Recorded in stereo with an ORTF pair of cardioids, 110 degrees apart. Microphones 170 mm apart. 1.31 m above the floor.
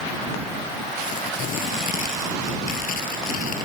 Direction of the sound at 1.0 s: 50° left.